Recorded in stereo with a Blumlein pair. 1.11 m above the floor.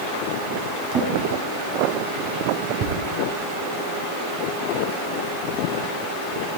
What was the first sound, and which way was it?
A drawer, 40° right.